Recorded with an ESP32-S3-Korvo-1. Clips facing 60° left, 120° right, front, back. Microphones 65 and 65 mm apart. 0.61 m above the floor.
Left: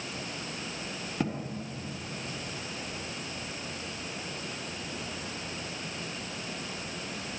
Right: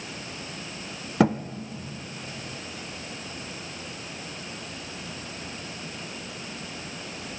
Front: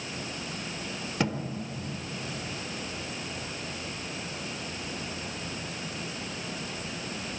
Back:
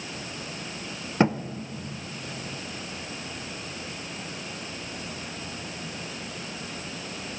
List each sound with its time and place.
1.2 s a thud: 120° right, 0.5 m